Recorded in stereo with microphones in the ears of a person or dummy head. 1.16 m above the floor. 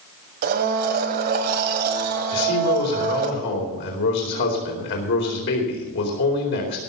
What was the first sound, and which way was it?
A blender, 50° right (ahead or behind).